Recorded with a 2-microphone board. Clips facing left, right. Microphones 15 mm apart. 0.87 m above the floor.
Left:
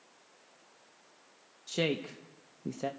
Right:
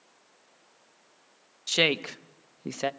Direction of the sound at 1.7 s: 45° right (ahead or behind).